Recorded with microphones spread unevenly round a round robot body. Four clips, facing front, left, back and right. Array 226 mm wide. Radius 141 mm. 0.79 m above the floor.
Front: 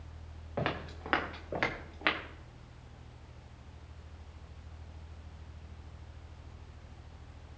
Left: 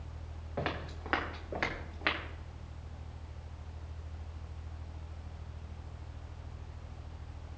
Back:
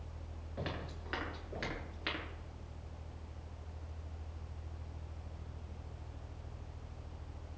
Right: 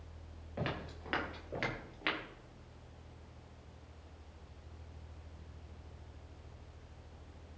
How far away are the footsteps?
About 4.5 m.